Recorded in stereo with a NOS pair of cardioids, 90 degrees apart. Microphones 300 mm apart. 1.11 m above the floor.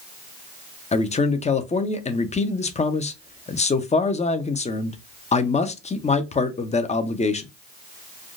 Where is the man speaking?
25° left, 0.7 m.